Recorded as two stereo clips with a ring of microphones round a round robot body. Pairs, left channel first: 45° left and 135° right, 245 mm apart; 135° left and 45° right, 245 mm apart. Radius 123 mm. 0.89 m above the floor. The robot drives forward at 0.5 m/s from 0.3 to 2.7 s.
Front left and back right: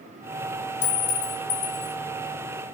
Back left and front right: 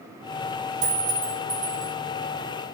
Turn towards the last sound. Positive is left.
turn(degrees=15)